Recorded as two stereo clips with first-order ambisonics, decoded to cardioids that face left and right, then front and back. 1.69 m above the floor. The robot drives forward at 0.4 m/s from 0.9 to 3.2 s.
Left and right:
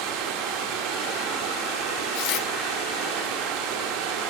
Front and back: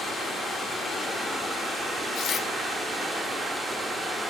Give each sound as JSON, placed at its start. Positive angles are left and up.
{"t": 0.0, "sound": "running water", "azimuth_deg": -80, "distance_m": 5.5}
{"t": 2.1, "sound": "tearing paper", "azimuth_deg": 60, "distance_m": 2.5}